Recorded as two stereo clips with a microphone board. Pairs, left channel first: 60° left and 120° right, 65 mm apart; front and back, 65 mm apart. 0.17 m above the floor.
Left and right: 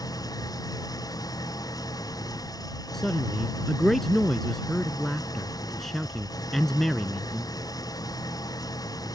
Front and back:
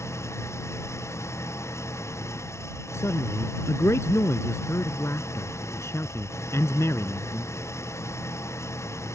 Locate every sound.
0.0 s an engine running: 45° left
2.9 s a man speaking: 25° right